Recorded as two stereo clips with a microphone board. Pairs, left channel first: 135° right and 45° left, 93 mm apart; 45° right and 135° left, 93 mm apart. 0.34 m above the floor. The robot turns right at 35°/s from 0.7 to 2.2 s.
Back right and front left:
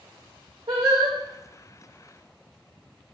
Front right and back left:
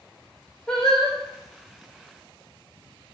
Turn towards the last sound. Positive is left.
turn(degrees=90)